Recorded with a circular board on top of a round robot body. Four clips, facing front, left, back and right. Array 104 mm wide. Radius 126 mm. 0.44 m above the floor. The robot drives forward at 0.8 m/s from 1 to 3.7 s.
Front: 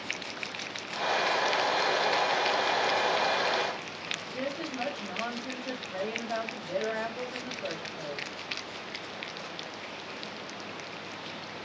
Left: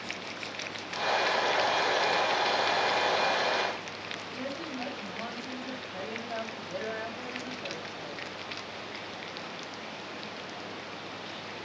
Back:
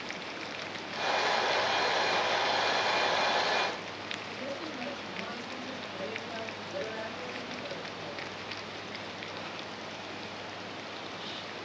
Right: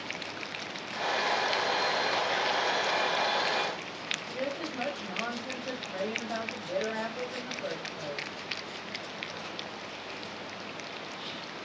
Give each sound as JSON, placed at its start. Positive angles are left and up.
{"t": 4.3, "sound": "a woman speaking", "azimuth_deg": -40, "distance_m": 4.5}